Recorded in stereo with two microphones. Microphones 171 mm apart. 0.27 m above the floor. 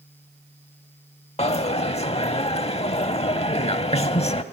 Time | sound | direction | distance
1.4 | a dropped coin | 35° left (ahead or behind) | 0.7 m